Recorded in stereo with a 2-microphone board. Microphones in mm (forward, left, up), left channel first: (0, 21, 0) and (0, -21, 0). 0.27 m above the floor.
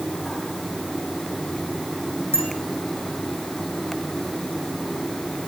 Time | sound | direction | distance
2.3 | a bicycle bell | 85° right | 10 m